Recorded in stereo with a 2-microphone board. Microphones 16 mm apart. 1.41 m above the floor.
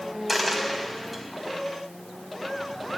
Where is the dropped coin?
10° left (ahead or behind), 3.5 m.